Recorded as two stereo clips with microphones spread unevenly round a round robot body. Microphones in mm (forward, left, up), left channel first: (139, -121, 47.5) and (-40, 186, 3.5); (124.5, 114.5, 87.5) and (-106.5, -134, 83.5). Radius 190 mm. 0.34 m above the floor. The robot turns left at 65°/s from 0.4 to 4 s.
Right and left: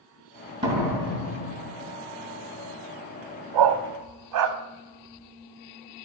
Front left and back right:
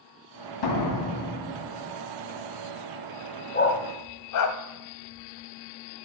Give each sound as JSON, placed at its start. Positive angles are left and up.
{"t": 0.6, "sound": "a door slam", "azimuth_deg": 45, "distance_m": 2.5}
{"t": 3.5, "sound": "a dog barking", "azimuth_deg": 115, "distance_m": 0.9}